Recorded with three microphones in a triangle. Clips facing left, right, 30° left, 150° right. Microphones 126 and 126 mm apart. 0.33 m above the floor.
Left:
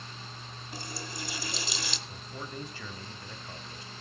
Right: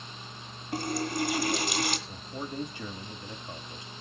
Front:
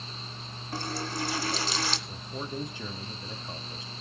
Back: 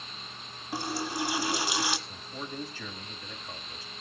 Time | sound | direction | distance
0.7 | a running tap | 70° right | 1.5 m
2.1 | a man speaking | 30° right | 1.2 m